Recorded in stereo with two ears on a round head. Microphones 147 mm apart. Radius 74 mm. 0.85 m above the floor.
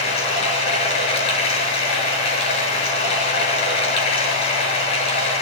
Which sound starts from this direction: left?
Running water, at 0.0 s.